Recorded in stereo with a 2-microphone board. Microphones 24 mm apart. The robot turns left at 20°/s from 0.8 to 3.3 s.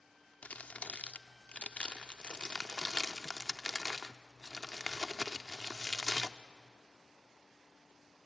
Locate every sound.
0.4 s crumpling: 65° left (ahead or behind), 0.6 m; by 6.4 s 20° left (ahead or behind), 0.6 m